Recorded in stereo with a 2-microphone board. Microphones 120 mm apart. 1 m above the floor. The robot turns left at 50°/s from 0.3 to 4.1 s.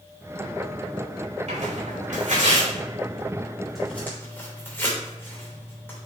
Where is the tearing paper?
65° right (ahead or behind), 3.5 m; by 6.1 s 20° left (ahead or behind), 3.5 m.